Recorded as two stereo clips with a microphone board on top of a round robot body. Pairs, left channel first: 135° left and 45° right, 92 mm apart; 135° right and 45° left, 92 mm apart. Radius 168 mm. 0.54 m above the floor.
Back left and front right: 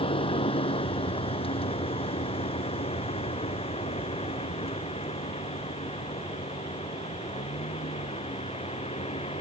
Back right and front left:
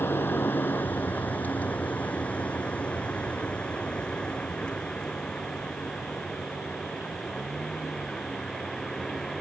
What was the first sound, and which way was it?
A vehicle, 155° left.